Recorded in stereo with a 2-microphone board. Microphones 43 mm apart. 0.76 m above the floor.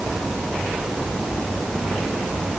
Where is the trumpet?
I don't hear a trumpet.